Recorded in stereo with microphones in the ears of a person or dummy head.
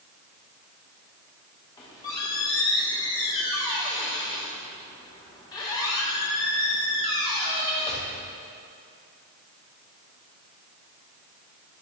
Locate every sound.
1.8 s a squeak: 20° left (ahead or behind), 1.0 m